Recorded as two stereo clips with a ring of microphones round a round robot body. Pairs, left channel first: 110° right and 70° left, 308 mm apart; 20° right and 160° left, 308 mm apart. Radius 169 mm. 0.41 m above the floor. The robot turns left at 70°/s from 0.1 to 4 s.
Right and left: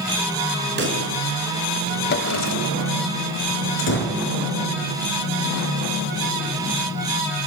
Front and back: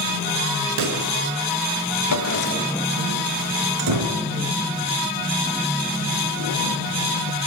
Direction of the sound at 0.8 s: 125° left.